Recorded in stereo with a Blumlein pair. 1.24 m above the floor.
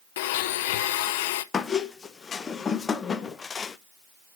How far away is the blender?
About 0.7 m.